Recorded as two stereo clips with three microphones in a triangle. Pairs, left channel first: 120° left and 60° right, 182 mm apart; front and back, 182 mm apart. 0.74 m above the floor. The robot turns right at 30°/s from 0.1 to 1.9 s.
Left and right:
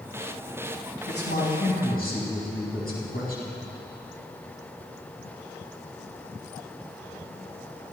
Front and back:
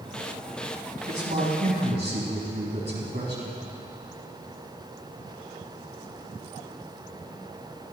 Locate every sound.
1.1 s a man speaking: 130° left, 5 m; by 3.6 s 155° left, 5 m